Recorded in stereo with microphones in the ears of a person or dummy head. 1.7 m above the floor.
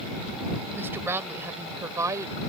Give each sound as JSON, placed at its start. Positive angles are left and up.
{"t": 0.7, "sound": "a woman speaking", "side_deg": -15}